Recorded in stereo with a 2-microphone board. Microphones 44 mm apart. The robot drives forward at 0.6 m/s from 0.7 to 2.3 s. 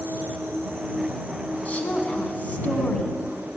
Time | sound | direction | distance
0.0 | an insect | 70° right (ahead or behind) | 1.9 m
1.6 | a woman speaking | 35° left (ahead or behind) | 1.3 m